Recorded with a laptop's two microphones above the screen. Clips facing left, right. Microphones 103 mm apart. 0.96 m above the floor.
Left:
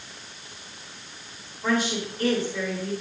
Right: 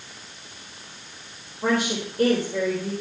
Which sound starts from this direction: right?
A woman speaking, at 1.6 s.